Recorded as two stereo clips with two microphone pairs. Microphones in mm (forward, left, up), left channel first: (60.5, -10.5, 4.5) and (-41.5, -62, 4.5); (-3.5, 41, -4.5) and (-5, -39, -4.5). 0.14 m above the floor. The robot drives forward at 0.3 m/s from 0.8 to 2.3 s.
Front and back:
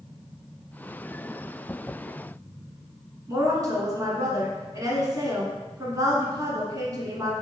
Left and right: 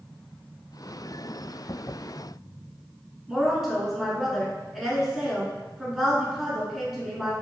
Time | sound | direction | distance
3.3 | a woman speaking | 175° right | 1.3 m